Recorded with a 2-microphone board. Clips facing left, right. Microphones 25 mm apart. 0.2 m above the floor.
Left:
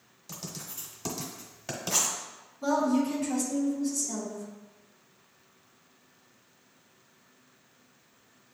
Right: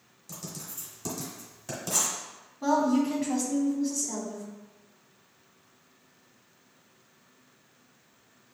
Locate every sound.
0.3 s writing: 30° left (ahead or behind), 1.1 m
2.6 s a woman speaking: 30° right (ahead or behind), 1.2 m